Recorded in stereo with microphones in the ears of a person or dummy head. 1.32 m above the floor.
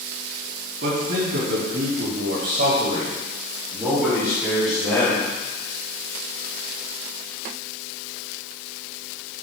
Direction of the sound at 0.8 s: 65° right (ahead or behind).